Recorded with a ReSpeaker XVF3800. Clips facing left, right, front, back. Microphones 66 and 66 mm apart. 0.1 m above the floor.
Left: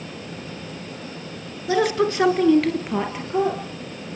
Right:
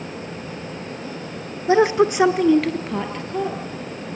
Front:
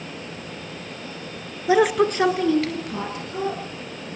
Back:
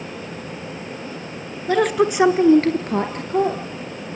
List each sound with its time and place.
1.7 s a woman speaking: 65° right, 1.5 m; by 3.6 s 160° left, 2.5 m